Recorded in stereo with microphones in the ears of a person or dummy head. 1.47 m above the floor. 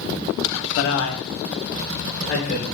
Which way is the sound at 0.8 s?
60° left (ahead or behind).